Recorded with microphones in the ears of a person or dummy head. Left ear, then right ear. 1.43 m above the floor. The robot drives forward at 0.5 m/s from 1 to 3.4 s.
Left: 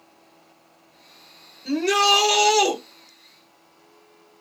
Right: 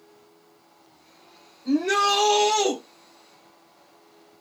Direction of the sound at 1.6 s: 55° left (ahead or behind).